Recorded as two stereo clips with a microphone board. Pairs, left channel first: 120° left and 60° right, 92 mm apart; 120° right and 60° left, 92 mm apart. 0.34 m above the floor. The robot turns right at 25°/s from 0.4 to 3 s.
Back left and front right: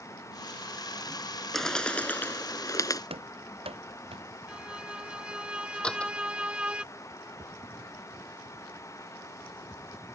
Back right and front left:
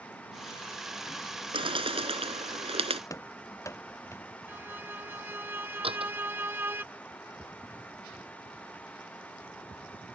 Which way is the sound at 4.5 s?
10° left.